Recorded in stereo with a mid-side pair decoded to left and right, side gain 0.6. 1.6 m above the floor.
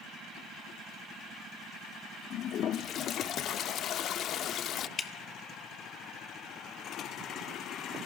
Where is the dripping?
35° left, 1.1 m.